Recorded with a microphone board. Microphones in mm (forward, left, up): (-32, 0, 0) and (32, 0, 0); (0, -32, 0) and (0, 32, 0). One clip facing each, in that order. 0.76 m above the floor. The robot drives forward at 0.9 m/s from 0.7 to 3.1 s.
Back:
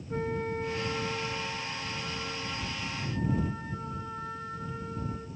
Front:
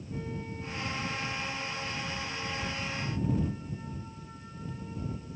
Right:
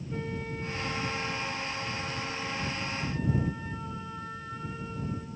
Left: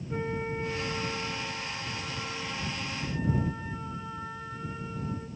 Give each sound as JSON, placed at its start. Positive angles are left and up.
{"t": 0.1, "sound": "a flute", "azimuth_deg": 155, "distance_m": 0.8}